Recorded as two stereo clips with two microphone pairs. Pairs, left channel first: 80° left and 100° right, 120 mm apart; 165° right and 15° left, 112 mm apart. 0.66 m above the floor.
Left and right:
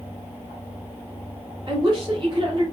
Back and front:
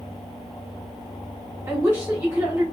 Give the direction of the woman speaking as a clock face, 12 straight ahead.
2 o'clock.